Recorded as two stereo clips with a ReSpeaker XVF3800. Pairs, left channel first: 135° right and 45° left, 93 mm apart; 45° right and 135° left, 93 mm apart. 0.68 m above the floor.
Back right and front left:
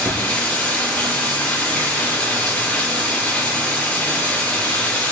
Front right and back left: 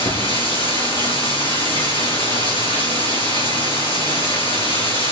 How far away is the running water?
About 7.5 m.